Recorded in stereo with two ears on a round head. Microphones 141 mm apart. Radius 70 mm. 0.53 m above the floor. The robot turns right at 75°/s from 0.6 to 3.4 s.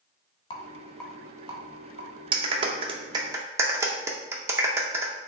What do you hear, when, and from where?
0.5 s a rattle: 35° left (ahead or behind), 1.1 m; by 2.2 s 80° right, 1.1 m
2.3 s a clap: 35° right (ahead or behind), 0.5 m; by 5.1 s 20° right (ahead or behind), 0.5 m